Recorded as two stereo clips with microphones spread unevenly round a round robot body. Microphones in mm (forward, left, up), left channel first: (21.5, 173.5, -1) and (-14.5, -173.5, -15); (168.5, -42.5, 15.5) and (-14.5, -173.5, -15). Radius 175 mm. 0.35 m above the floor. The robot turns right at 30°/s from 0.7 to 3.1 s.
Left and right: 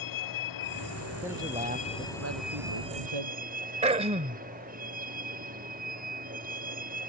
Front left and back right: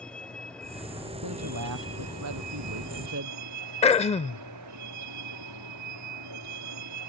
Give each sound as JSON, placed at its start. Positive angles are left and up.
{"t": 0.0, "sound": "a vehicle", "azimuth_deg": 125}
{"t": 1.2, "sound": "a man speaking", "azimuth_deg": 180}
{"t": 3.8, "sound": "throat clearing", "azimuth_deg": -30}